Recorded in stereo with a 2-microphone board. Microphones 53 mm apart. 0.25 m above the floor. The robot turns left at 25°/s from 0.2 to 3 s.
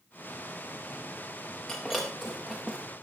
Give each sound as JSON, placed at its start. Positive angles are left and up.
{"t": 1.7, "sound": "breaking glass", "side_deg": 5, "distance_m": 6.0}